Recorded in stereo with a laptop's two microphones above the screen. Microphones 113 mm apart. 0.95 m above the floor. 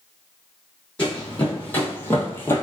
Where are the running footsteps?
10° left (ahead or behind), 1.6 m; by 2.6 s 20° left (ahead or behind), 1.0 m.